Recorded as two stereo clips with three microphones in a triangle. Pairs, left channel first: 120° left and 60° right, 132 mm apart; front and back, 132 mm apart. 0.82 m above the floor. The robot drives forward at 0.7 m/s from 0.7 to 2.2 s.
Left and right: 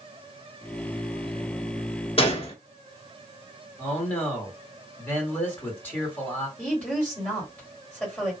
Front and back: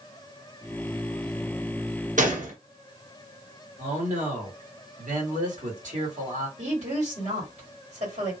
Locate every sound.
2.2 s a gunshot: 165° left, 0.9 m
3.8 s a man speaking: 165° right, 2 m
6.6 s a woman speaking: 160° right, 2 m